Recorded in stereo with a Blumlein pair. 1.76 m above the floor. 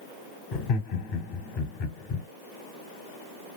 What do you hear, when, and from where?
0.5 s laughter: 30° left, 0.9 m